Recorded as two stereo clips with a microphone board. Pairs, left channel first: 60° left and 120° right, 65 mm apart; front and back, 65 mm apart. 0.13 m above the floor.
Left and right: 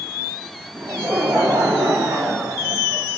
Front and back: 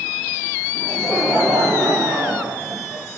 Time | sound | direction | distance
0.8 | laughter | 85° right | 3.5 m